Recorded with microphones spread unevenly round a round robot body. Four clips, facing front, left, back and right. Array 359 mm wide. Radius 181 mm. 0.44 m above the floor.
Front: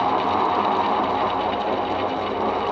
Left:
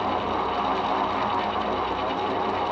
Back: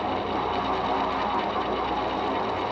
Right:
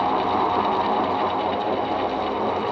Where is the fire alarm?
I don't hear a fire alarm.